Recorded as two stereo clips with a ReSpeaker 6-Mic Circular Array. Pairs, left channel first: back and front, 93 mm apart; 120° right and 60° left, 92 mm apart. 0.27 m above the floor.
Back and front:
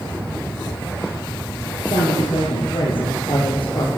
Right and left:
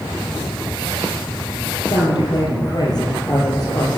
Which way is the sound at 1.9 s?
155° right.